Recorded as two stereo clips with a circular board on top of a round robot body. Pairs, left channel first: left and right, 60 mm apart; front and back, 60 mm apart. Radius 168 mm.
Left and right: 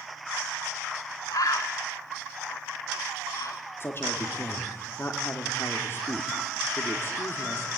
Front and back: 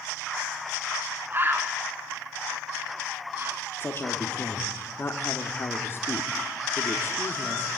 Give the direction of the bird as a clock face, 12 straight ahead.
8 o'clock.